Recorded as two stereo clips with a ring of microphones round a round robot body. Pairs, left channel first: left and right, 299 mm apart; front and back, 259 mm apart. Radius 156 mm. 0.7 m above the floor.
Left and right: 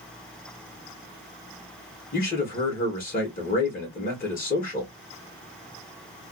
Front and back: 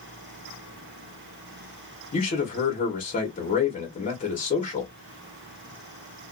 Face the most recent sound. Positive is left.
turn(degrees=45)